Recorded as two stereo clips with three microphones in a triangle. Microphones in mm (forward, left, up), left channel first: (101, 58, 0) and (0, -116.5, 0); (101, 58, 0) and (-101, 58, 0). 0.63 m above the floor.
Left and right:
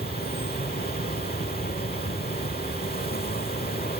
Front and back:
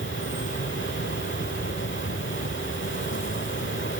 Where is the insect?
20° left.